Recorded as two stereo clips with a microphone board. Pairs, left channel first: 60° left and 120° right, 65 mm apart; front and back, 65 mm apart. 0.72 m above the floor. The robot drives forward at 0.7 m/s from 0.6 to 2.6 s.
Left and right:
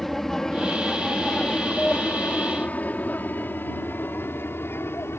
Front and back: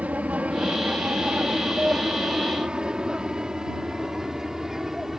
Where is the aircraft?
140° left; by 5.2 s 95° left.